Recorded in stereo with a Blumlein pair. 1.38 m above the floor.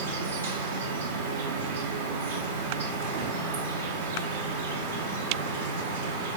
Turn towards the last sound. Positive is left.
turn(degrees=-65)